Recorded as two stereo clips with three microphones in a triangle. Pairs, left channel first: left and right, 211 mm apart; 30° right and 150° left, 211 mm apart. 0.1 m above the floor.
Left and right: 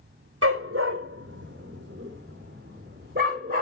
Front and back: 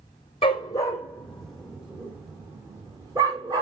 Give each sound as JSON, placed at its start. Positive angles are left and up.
{"t": 0.4, "sound": "a dog barking", "azimuth_deg": -95, "distance_m": 1.6}